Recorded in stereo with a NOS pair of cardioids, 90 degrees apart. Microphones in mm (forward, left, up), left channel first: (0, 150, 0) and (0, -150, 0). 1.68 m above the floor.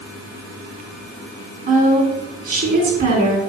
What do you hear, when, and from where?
1.7 s a woman speaking: 30° right, 3.5 m